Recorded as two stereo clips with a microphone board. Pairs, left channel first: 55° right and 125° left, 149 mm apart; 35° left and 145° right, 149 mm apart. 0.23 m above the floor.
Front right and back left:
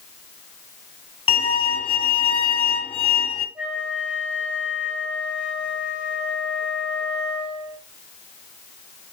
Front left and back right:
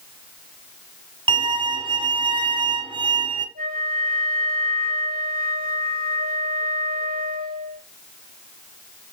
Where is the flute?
155° right, 4 m.